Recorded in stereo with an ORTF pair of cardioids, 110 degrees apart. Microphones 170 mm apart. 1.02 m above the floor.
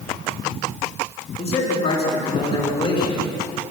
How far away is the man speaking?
About 9 m.